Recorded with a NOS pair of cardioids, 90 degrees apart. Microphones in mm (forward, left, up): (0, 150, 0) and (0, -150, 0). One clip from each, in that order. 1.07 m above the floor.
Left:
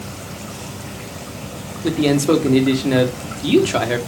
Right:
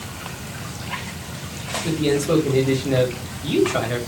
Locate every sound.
1.8 s a man speaking: 60° left, 2 m